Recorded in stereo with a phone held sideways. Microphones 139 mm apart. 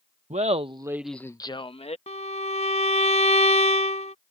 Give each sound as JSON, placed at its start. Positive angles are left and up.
{"t": 0.3, "sound": "laughter", "side_deg": -60}
{"t": 2.1, "sound": "a violin", "side_deg": 60}